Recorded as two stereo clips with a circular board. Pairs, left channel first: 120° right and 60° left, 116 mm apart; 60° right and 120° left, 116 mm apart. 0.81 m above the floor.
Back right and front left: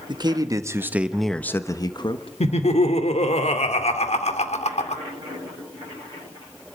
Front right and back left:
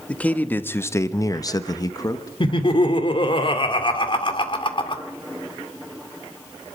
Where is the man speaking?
15° left, 1.4 m; by 2.3 s 110° right, 1.2 m.